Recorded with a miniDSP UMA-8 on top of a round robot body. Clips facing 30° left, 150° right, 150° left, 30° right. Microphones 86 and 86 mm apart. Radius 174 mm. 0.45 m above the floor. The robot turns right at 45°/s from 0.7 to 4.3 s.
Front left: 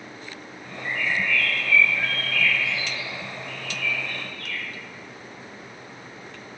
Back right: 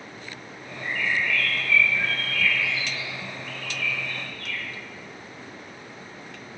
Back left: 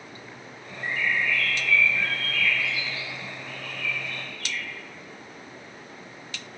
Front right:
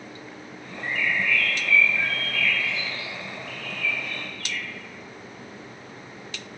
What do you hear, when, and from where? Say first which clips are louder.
0.8 s a bird: even, even; 150° right, 0.7 m; by 4.6 s 5° left, 0.7 m